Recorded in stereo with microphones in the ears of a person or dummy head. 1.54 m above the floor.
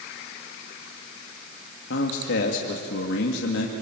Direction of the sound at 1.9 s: 75° left (ahead or behind).